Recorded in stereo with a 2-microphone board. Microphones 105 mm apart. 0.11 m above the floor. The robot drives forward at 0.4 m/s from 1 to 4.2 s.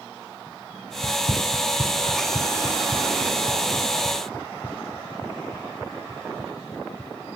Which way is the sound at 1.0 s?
70° left (ahead or behind).